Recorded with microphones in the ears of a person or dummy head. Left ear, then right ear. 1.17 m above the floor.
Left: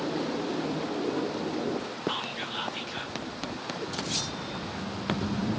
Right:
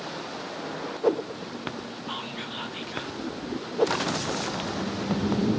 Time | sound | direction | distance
2.1 | whispering | 5° right (ahead or behind) | 0.6 m